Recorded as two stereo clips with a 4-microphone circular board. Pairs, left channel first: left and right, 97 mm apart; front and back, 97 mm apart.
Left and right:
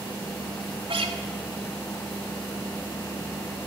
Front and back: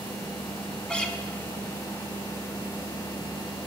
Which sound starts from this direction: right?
A guitar, at 0.9 s.